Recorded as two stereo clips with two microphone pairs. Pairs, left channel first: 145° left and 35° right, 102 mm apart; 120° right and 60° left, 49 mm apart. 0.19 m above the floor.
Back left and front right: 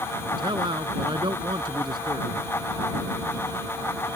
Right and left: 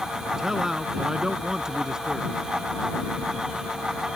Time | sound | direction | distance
0.4 | a man speaking | 15° right | ?